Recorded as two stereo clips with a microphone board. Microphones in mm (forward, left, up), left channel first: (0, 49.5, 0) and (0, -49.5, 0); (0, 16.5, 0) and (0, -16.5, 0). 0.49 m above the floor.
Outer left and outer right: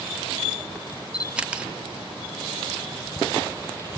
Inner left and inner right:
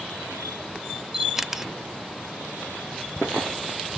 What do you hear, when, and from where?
1.1 s a camera shutter: 10° right (ahead or behind), 0.5 m